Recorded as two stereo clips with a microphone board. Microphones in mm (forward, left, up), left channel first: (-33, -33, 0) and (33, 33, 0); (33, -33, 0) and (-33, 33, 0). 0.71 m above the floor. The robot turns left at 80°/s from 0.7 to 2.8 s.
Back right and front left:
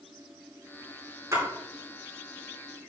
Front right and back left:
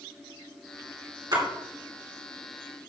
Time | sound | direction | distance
1.3 | a splash | 100° left | 2.5 m